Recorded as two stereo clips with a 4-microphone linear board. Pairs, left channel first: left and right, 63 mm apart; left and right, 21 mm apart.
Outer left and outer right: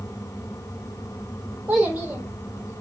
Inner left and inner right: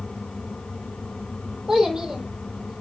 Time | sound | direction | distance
1.7 | a child speaking | 15° right (ahead or behind) | 4.5 m